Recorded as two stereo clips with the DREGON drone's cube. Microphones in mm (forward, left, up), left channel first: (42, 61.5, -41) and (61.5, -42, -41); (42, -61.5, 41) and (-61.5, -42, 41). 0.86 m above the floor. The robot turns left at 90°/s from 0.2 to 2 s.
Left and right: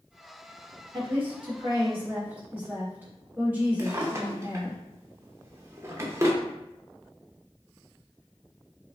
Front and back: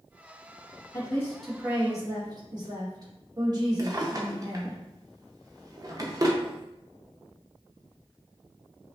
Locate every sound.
0.9 s a woman speaking: 55° right, 1.3 m; by 4.8 s 150° right, 1.3 m
3.8 s a drawer: 140° right, 0.7 m